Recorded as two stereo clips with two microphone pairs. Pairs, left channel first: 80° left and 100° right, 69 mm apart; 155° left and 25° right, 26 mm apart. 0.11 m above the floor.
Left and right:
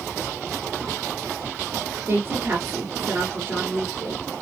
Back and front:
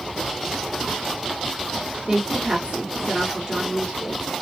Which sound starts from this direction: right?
A woman speaking, at 2.1 s.